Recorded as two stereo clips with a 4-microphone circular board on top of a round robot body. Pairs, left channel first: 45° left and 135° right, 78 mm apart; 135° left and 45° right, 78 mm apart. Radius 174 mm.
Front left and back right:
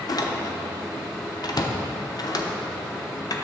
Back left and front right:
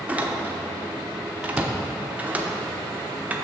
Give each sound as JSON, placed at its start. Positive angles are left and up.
{"t": 0.1, "sound": "a door slam", "azimuth_deg": 25, "distance_m": 1.0}